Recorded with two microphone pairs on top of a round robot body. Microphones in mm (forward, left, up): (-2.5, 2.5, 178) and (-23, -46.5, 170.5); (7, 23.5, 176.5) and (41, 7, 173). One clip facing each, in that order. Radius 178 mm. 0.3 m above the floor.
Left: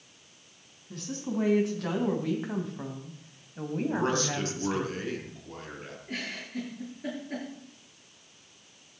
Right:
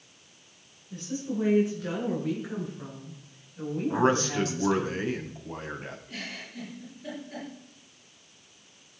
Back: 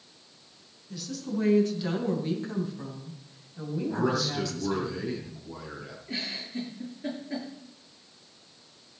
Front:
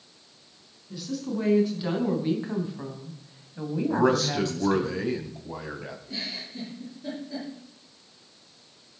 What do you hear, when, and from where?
0.9 s a woman speaking: 55° left, 5 m; by 4.9 s 10° left, 3 m
3.9 s a man speaking: 55° right, 3 m
6.1 s a giggle: 105° left, 8 m